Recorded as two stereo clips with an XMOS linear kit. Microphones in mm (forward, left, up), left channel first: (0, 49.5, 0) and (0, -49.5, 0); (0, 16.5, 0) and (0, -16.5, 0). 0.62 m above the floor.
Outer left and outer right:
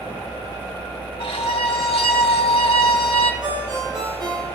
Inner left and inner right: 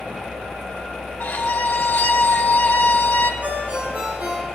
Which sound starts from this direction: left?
A violin, at 1.2 s.